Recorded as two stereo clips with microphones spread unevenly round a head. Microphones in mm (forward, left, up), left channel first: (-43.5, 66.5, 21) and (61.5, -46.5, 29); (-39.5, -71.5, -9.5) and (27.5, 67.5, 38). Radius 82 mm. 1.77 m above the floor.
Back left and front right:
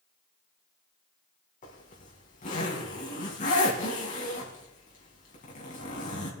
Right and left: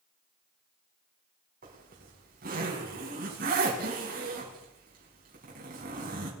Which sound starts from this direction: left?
A zipper, at 1.6 s.